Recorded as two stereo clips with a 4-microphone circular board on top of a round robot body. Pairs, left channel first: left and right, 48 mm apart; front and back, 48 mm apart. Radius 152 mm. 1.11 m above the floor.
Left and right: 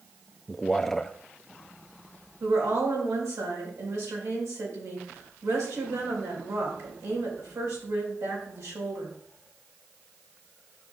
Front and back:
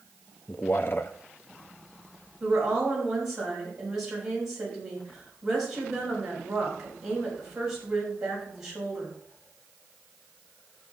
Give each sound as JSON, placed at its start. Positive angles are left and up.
{"t": 0.5, "sound": "a man speaking", "azimuth_deg": 10, "distance_m": 0.6}
{"t": 2.4, "sound": "a woman speaking", "azimuth_deg": -100, "distance_m": 4.5}